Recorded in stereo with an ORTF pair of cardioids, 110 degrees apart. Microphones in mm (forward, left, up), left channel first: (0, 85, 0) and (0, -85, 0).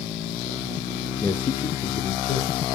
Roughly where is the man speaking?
Ahead.